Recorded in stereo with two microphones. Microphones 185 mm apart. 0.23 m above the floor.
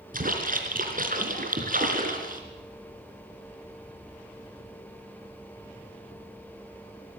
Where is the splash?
50° right (ahead or behind), 3.5 m.